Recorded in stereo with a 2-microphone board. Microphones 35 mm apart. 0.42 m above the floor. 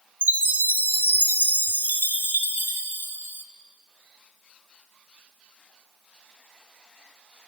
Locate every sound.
0.2 s a chime: 65° right (ahead or behind), 0.6 m